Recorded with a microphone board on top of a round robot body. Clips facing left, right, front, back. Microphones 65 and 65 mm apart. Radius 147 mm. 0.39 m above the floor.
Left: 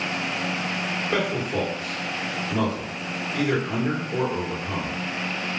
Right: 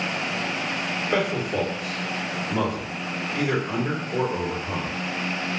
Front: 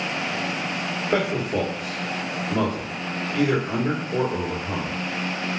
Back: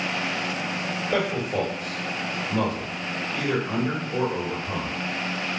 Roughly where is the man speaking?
Ahead.